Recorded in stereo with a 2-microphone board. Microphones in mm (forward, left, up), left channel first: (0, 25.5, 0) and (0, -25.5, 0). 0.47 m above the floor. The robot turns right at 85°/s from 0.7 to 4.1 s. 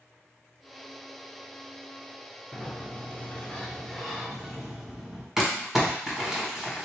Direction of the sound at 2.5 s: 20° left (ahead or behind).